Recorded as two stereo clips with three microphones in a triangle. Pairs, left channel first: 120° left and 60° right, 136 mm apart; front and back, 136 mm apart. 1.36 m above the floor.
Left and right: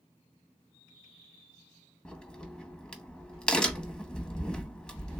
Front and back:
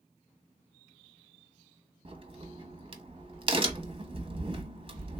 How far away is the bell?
I don't hear a bell.